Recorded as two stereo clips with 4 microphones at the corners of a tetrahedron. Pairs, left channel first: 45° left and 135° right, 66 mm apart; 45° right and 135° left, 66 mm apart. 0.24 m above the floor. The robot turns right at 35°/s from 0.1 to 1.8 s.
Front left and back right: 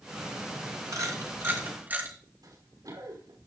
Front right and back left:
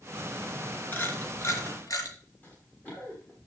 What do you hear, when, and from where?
0.9 s a camera shutter: 105° right, 4 m; by 2.1 s 75° right, 4 m
2.4 s running footsteps: 110° right, 6.5 m